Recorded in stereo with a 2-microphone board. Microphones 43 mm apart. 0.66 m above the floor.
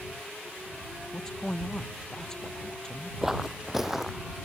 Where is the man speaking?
15° left (ahead or behind).